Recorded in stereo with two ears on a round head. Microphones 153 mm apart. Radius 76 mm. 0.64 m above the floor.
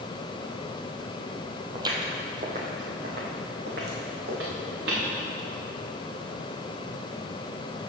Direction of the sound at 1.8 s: 20° right (ahead or behind).